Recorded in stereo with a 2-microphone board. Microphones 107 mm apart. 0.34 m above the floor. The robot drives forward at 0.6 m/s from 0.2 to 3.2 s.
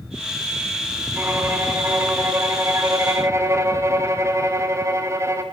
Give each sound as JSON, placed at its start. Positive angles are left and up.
{"t": 1.1, "sound": "a violin", "side_deg": -15, "distance_m": 3.0}